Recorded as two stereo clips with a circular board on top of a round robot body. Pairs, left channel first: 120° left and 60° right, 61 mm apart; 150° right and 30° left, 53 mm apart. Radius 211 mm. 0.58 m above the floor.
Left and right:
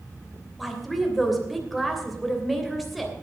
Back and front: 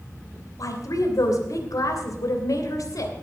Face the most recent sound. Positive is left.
turn(degrees=-150)